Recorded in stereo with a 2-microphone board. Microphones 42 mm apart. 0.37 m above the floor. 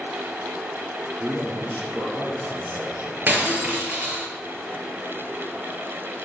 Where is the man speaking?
75° right (ahead or behind), 6.5 m.